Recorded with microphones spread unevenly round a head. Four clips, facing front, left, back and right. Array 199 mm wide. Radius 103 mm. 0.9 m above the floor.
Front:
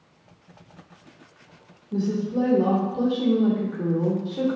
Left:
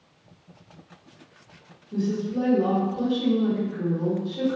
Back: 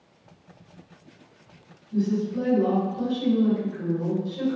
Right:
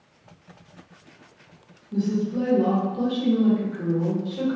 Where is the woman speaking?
Straight ahead, 1.3 m.